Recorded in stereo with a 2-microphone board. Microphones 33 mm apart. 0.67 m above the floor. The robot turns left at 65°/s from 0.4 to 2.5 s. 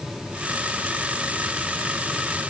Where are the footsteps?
I don't hear footsteps.